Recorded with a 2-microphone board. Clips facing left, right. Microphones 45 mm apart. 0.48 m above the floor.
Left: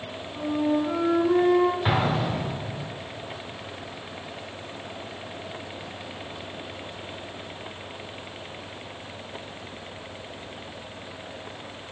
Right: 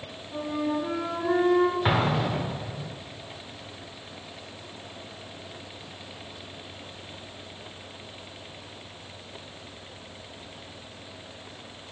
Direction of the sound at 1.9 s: 15° right (ahead or behind).